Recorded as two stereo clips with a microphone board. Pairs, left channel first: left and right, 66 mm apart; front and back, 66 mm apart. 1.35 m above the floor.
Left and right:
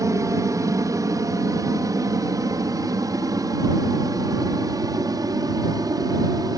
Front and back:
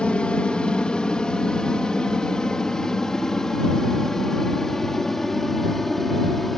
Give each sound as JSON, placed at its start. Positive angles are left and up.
{"t": 0.0, "sound": "an aircraft", "azimuth_deg": -75}